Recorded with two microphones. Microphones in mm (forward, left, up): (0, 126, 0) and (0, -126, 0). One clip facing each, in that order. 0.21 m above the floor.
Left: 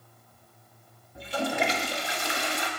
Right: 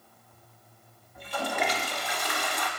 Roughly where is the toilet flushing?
Left.